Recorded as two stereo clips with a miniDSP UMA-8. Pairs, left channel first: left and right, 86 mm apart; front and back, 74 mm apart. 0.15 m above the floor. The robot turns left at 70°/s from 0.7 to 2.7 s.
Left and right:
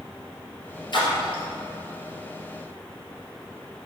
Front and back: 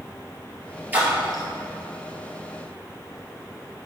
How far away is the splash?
About 2 m.